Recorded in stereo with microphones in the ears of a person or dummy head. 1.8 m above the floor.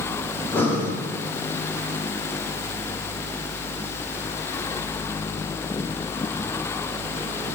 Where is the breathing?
10° left (ahead or behind), 0.6 m.